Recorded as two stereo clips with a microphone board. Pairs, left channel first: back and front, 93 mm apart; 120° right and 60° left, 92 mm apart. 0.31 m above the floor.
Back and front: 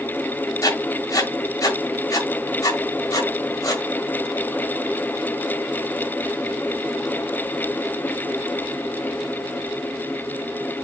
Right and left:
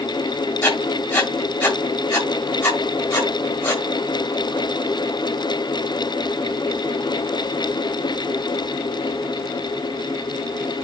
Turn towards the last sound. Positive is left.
turn(degrees=-160)